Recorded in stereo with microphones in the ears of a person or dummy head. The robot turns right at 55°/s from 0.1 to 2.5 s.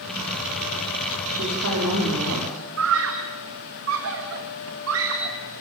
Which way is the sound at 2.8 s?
75° right (ahead or behind).